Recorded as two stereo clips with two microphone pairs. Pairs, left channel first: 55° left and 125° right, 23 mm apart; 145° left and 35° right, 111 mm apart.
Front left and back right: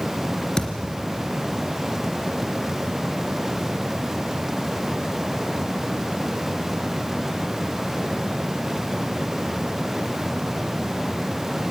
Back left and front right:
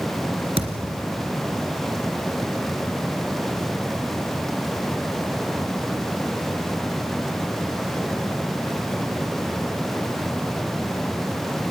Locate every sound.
0.6 s a thud: 10° right, 2.5 m